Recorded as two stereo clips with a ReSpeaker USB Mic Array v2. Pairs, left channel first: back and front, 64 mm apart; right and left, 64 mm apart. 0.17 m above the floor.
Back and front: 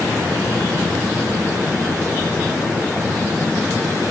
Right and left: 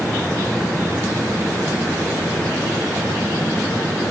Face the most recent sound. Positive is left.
No sound to turn to.